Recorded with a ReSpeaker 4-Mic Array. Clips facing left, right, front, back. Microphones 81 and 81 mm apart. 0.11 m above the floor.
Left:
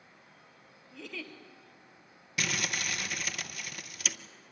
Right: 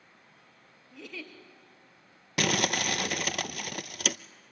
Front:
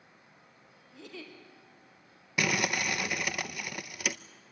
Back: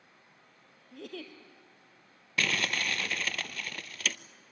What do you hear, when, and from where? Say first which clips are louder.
0.9 s a giggle: even, back 3 dB; 175° right, 2 m
2.4 s crumpling: right 7 dB, front 2 dB; 75° right, 0.5 m